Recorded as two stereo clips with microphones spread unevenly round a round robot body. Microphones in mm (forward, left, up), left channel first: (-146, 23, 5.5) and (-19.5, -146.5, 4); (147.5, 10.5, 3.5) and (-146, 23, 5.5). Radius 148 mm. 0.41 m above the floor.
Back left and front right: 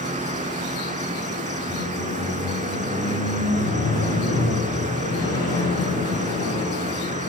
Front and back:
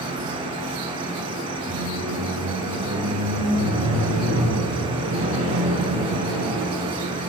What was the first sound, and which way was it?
An insect, 110° right.